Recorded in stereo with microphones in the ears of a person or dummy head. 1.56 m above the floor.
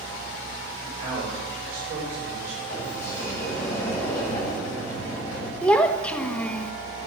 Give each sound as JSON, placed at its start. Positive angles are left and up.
{"t": 0.8, "sound": "a man speaking", "side_deg": -50, "distance_m": 5.5}
{"t": 2.7, "sound": "a sliding door", "side_deg": 15, "distance_m": 8.0}
{"t": 5.6, "sound": "a child speaking", "side_deg": 5, "distance_m": 1.3}